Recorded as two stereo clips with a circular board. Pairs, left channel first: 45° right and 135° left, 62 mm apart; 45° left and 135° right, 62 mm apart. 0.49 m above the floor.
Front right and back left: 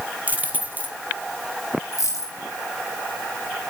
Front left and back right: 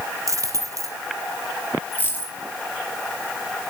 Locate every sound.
0.3 s a dropped coin: 165° right, 2.5 m
1.9 s a dropped coin: 10° right, 6.5 m